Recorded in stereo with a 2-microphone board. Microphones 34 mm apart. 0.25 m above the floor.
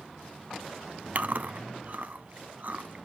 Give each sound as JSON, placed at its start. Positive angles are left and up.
{"t": 1.1, "sound": "chewing", "side_deg": -55, "distance_m": 0.6}